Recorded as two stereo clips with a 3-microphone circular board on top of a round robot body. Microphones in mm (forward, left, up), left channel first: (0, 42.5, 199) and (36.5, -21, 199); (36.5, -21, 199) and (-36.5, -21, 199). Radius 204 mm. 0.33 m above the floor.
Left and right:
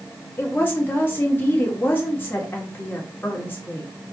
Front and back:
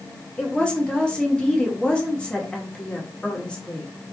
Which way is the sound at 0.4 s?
70° left.